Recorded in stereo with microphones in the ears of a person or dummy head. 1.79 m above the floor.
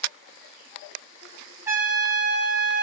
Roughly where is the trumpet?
Centre.